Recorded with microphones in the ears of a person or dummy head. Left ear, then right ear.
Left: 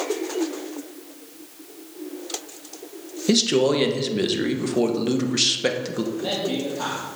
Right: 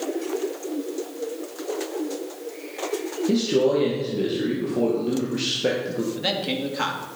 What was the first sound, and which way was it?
A man speaking, 55° left (ahead or behind).